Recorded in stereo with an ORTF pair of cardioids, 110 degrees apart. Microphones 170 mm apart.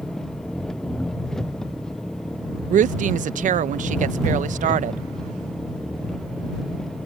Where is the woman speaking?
50° right.